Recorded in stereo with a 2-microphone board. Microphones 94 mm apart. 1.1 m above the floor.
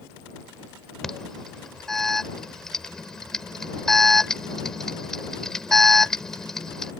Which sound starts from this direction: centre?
An alarm, at 1.0 s.